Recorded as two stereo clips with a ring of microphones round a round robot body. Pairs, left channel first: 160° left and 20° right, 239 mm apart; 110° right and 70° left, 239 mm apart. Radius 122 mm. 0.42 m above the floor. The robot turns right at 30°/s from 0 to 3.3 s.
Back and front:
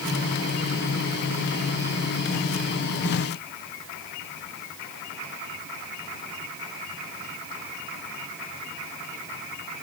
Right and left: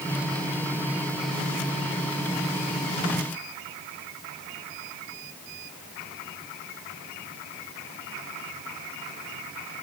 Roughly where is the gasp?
No gasp in this recording.